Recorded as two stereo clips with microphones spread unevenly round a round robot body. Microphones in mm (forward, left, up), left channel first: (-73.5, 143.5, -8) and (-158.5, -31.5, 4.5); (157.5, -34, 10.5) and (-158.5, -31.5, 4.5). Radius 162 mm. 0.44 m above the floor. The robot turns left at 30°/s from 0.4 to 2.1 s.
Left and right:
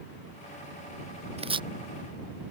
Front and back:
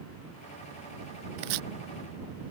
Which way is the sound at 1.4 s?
175° right.